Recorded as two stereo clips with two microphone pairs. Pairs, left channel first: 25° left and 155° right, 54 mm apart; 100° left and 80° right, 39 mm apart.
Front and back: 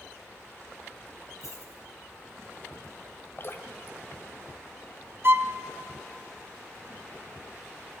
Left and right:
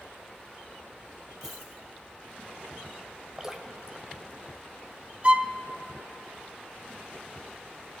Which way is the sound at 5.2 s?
125° right.